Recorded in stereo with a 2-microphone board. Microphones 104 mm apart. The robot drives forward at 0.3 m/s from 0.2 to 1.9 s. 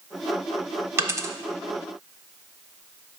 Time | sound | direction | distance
1.0 | a dropped coin | 25° right (ahead or behind) | 0.6 m